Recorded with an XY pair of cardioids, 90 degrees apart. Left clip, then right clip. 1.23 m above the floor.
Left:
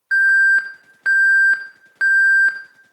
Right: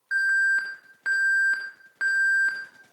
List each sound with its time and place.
0.1 s an alarm: 55° left, 1.4 m